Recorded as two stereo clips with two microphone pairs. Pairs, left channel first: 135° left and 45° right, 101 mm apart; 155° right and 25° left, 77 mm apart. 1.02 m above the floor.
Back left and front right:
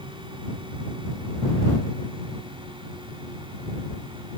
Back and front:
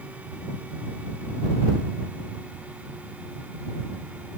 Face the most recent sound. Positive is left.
No sound to turn to.